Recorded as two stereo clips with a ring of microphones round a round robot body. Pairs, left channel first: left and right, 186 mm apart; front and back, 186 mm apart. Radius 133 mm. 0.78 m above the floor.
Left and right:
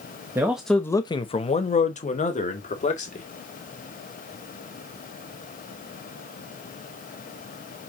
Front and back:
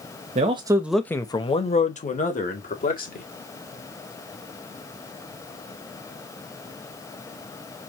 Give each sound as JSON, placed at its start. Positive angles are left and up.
{"t": 0.3, "sound": "a man speaking", "azimuth_deg": -160, "distance_m": 1.0}